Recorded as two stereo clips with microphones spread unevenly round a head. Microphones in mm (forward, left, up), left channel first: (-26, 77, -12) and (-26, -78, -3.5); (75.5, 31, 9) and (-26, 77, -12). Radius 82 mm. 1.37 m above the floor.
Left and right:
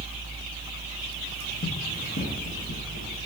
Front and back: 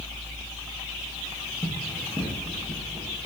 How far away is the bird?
No bird in this recording.